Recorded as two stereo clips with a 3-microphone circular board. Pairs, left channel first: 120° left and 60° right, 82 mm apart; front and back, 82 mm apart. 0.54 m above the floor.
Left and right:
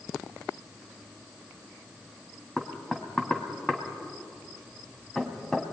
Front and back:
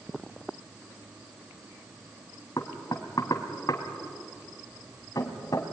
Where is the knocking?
40° left, 2.5 m.